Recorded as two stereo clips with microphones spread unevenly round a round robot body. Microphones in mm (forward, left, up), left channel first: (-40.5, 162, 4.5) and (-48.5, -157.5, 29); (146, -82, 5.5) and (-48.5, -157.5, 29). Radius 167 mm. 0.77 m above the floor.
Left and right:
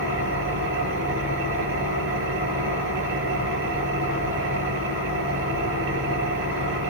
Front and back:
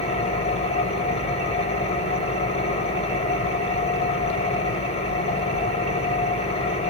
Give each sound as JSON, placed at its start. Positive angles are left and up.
{"t": 0.0, "sound": "an engine running", "azimuth_deg": -40, "distance_m": 7.5}